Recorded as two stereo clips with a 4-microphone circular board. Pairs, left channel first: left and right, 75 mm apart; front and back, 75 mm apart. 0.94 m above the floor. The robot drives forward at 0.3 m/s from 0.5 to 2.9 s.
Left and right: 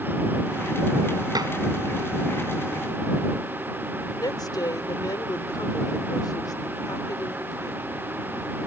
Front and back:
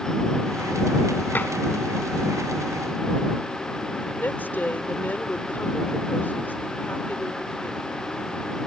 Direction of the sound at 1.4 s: 65° right.